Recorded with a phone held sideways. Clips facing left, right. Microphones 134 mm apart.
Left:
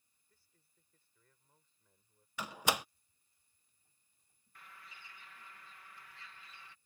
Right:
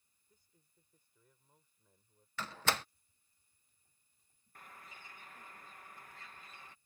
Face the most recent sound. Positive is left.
turn(degrees=-45)  # may be behind; listen again after turning